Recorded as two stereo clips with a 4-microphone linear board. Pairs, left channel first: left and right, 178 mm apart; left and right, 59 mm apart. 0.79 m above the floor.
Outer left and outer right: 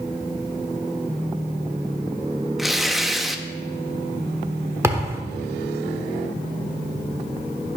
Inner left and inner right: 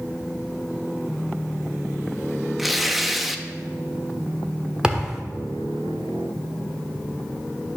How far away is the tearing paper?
About 0.6 m.